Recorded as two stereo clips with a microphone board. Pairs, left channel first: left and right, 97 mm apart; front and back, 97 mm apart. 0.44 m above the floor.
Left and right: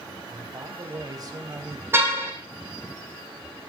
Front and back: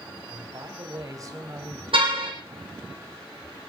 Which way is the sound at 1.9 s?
155° right.